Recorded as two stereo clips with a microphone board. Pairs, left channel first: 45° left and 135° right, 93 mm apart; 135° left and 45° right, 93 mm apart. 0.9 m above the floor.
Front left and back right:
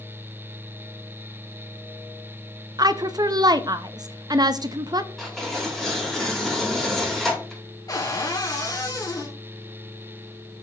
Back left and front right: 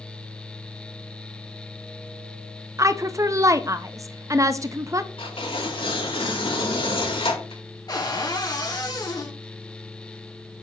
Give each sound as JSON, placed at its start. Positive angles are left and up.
{"t": 2.8, "sound": "a woman speaking", "azimuth_deg": -95, "distance_m": 0.6}
{"t": 5.2, "sound": "tearing paper", "azimuth_deg": 135, "distance_m": 4.0}
{"t": 7.9, "sound": "a cupboard door", "azimuth_deg": 90, "distance_m": 3.0}